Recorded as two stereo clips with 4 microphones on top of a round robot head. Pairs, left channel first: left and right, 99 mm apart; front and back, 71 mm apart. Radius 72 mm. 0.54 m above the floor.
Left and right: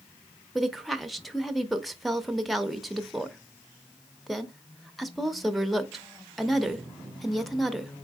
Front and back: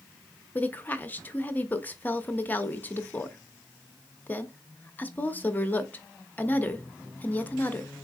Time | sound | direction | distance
0.6 | a woman speaking | straight ahead | 0.6 m